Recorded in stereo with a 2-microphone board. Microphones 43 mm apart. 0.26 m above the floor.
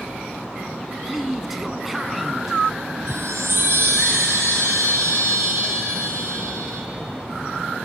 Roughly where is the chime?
Right.